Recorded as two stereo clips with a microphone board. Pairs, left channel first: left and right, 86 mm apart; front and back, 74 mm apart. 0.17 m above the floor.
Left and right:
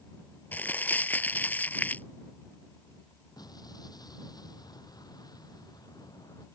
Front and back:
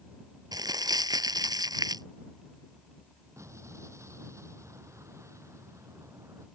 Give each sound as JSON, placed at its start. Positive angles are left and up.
{"t": 0.5, "sound": "crumpling", "azimuth_deg": 160}
{"t": 3.4, "sound": "an explosion", "azimuth_deg": 130}